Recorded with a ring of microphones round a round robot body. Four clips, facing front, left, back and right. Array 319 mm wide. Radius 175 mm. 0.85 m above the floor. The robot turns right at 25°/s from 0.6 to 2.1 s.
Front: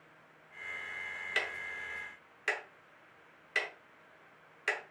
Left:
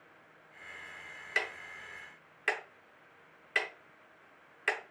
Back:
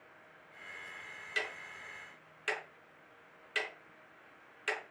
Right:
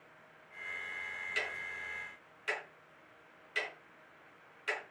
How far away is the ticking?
About 0.7 m.